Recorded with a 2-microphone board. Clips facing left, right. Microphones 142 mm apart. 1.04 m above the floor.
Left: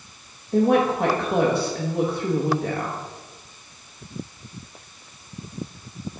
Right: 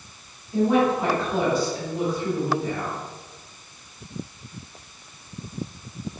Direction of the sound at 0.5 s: 60° left (ahead or behind).